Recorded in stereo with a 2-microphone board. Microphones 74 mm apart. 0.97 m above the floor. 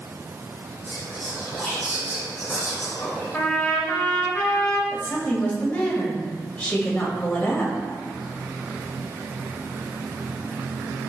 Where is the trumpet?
20° left (ahead or behind), 5 m.